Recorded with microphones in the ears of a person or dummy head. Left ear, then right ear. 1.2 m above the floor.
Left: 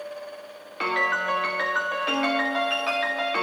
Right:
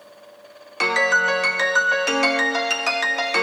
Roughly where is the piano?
Right.